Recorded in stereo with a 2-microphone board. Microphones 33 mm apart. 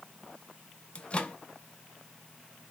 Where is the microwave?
35° left (ahead or behind), 0.5 m.